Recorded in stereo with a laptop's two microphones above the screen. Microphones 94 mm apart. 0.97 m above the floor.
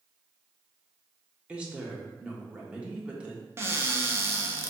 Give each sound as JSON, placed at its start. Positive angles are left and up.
{"t": 1.5, "sound": "a woman speaking", "side_deg": -10, "distance_m": 0.9}
{"t": 3.6, "sound": "a cupboard door", "side_deg": -25, "distance_m": 0.6}